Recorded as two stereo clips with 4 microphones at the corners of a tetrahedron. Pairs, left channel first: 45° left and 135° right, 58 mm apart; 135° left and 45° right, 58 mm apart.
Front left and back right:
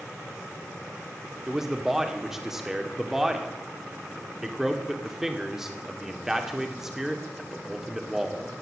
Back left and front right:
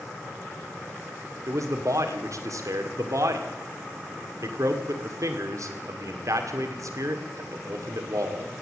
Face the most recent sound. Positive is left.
turn(degrees=-50)